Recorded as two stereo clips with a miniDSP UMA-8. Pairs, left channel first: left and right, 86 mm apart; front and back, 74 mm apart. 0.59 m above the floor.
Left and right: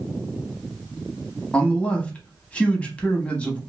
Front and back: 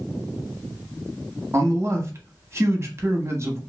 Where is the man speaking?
155° left, 0.8 m.